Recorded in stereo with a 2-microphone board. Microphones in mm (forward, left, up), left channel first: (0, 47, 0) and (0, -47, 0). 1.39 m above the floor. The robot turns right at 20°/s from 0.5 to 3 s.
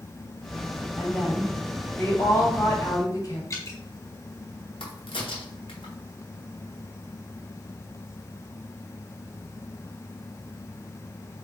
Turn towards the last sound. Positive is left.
turn(degrees=70)  # may be behind; listen again after turning